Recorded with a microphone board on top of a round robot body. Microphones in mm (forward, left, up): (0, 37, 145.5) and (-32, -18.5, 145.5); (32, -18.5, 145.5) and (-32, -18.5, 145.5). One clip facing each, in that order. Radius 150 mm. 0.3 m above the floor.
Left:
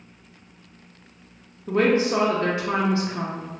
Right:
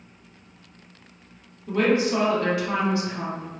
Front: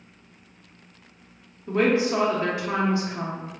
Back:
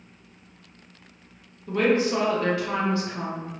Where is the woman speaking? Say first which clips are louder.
Left 1 dB, even; 50° left, 0.9 m.